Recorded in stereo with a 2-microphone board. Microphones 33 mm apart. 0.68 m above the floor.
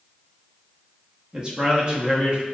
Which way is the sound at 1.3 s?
25° right (ahead or behind).